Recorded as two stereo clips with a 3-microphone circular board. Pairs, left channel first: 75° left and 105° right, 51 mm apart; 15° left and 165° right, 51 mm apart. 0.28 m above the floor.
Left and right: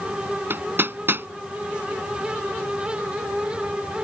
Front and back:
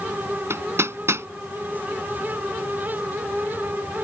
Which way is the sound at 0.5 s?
145° right.